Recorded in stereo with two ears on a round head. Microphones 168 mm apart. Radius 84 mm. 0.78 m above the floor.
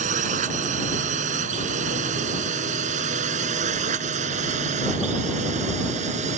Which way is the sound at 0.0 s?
45° right (ahead or behind).